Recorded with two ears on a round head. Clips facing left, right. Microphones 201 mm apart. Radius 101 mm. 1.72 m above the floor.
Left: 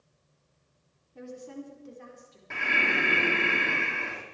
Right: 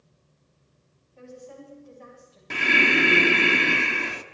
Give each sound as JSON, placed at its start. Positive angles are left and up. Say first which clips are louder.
{"t": 1.1, "sound": "a woman speaking", "louder": "left 2 dB", "side_deg": 70, "distance_m": 4.5}
{"t": 2.5, "sound": "breathing", "louder": "right 8 dB", "side_deg": -50, "distance_m": 0.9}